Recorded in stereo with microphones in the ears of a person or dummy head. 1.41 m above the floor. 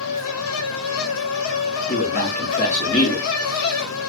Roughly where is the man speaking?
Left.